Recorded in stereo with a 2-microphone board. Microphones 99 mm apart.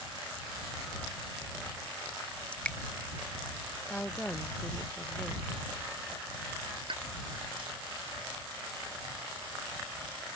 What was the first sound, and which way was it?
Dripping, 10° left (ahead or behind).